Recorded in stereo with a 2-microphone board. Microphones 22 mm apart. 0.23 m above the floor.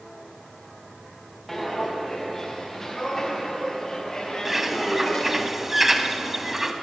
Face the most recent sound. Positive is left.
turn(degrees=-15)  # may be behind; listen again after turning